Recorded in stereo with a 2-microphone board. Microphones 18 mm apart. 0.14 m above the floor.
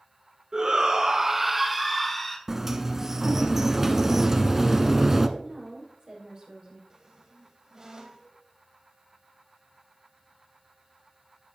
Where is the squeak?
35° right (ahead or behind), 1.6 m.